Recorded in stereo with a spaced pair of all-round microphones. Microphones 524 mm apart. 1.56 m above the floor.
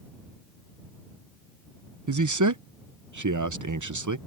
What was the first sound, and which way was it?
A man speaking, 35° right (ahead or behind).